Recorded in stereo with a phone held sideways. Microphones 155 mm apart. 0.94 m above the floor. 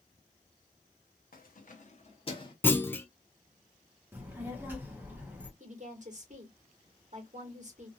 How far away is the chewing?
No chewing in this recording.